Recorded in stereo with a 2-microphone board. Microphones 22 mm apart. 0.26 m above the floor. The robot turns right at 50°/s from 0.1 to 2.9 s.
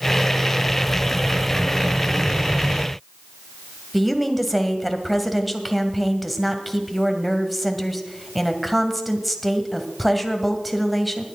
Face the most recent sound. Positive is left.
turn(degrees=0)  # may be behind; listen again after turning